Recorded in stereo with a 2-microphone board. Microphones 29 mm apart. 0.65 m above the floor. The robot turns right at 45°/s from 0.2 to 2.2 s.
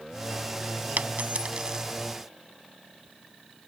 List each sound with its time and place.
1.0 s a dropped coin: 70° right (ahead or behind); by 1.9 s 30° right (ahead or behind)